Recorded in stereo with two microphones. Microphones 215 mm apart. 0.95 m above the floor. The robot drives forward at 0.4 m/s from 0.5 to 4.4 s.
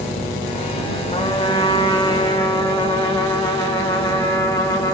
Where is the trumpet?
25° left (ahead or behind), 1.7 m; by 4.9 s 15° left (ahead or behind), 3 m.